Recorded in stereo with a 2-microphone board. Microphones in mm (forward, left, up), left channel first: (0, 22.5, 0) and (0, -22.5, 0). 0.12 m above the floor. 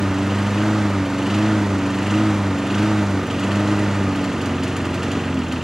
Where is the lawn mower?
10° right (ahead or behind).